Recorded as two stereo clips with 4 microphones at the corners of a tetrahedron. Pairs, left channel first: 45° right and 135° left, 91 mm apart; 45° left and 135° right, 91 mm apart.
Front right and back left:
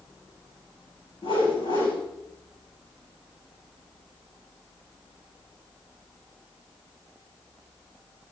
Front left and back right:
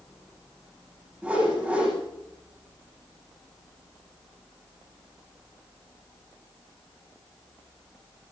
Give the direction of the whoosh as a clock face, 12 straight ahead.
2 o'clock.